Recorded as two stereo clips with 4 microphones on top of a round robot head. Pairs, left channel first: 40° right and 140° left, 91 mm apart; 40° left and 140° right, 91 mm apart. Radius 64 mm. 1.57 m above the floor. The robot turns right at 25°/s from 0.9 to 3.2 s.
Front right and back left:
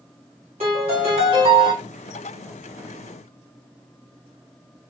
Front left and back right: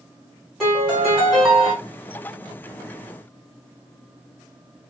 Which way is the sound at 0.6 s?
125° left.